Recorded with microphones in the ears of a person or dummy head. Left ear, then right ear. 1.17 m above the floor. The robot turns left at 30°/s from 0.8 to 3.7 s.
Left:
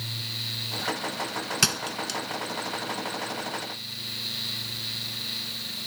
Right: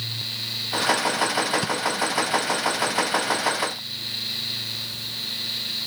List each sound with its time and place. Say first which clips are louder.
1.6 s a thud: right 2 dB; 75° left (ahead or behind); by 2.2 s 55° left (ahead or behind)